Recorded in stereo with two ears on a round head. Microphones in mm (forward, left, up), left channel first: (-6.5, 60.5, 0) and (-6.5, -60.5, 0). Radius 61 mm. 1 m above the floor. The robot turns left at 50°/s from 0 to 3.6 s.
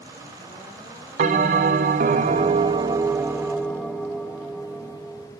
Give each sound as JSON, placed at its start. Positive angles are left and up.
{"t": 1.2, "sound": "a bell", "azimuth_deg": -65, "distance_m": 0.6}